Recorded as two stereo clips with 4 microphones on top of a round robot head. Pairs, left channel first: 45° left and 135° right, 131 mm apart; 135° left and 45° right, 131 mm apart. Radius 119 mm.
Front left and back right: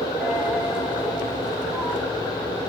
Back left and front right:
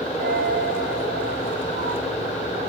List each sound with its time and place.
0.2 s a dropped coin: 50° right, 4 m